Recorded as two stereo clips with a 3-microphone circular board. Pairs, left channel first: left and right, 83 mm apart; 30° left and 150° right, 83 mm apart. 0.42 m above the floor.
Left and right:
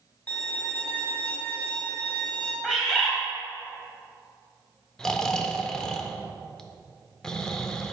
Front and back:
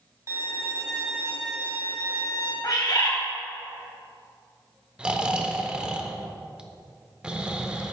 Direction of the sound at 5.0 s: 160° left.